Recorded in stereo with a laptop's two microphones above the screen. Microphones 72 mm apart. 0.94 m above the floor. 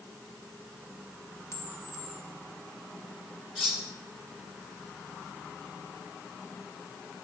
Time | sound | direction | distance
1.5 | a camera shutter | 35° left (ahead or behind) | 0.8 m
3.5 | cutlery clinking | 5° right (ahead or behind) | 3.5 m